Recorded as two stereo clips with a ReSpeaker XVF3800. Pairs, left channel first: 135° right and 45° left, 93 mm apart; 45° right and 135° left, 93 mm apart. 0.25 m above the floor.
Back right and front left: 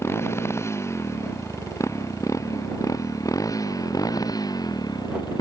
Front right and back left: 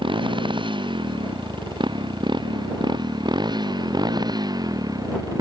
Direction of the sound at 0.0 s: 165° left.